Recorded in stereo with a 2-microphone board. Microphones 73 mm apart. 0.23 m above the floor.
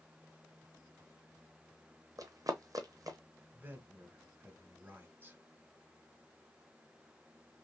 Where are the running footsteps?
55° right (ahead or behind), 0.8 m.